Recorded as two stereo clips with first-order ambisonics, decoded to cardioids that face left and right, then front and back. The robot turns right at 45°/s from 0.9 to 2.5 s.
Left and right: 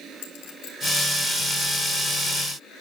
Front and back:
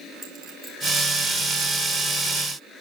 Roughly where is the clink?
Left.